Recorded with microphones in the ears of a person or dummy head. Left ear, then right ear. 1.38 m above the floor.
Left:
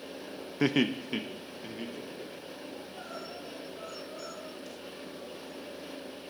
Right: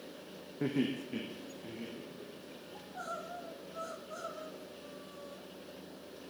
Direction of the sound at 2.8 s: 65° right (ahead or behind).